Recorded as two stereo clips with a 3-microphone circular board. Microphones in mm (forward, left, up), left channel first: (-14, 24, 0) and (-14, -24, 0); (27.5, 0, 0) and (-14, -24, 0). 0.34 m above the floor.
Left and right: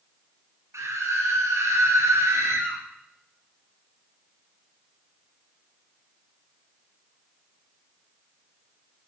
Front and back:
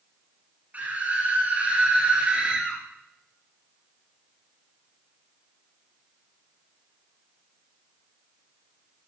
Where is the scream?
95° right, 5 m; by 2.8 s 80° right, 4.5 m.